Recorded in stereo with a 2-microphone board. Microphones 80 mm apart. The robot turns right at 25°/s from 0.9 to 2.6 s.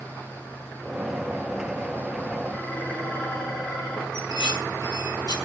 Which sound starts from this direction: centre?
Dishes clattering, at 2.5 s.